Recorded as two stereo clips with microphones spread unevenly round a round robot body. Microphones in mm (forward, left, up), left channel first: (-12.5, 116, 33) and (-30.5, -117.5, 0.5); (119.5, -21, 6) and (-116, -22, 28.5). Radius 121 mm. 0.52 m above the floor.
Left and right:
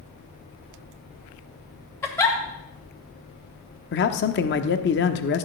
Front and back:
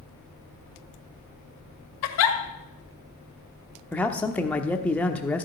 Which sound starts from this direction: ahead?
A giggle, at 2.0 s.